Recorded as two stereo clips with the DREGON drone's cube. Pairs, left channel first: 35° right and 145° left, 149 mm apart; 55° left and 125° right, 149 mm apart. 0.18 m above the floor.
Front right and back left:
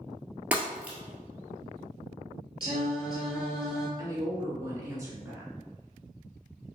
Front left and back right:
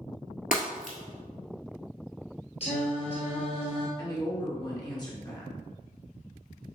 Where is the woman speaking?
95° left, 1.6 m.